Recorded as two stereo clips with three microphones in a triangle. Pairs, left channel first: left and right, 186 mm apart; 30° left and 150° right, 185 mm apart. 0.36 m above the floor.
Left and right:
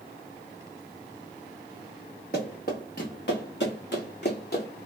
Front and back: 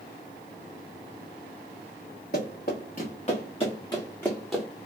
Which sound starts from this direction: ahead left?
Running footsteps, at 2.3 s.